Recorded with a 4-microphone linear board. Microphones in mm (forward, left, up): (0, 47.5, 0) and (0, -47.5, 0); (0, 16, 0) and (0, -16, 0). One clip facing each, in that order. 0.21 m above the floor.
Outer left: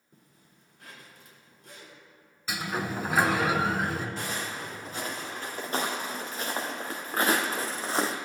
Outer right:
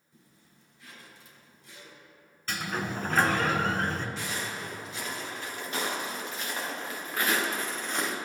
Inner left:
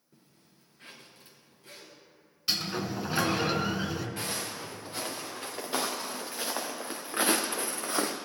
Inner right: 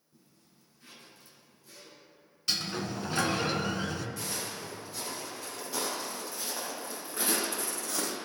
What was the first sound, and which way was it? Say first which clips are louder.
A zipper: outer left 1 dB, inner left 1 dB; 60° left (ahead or behind).